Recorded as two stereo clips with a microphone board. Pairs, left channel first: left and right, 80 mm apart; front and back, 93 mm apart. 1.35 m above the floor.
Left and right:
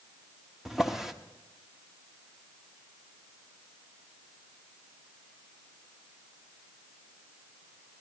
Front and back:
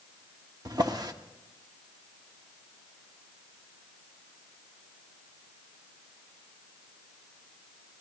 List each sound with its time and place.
0.7 s a drawer: 175° right, 1.0 m